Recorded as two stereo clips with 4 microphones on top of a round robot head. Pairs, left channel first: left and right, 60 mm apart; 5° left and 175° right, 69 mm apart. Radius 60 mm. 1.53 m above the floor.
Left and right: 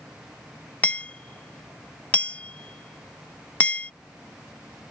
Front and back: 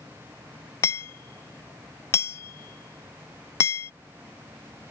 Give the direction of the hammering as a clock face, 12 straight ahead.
11 o'clock.